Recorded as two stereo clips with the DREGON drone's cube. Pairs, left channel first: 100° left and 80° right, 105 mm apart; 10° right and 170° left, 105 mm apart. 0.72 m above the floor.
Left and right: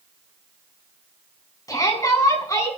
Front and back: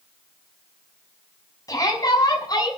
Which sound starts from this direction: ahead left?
A shout, at 1.7 s.